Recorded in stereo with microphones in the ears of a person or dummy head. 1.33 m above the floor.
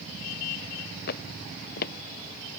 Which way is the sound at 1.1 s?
65° left (ahead or behind).